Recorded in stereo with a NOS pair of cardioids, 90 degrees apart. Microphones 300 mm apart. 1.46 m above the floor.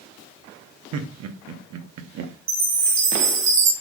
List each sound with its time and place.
0.9 s laughter: 60° right, 0.8 m
2.5 s a chime: 65° right, 1.3 m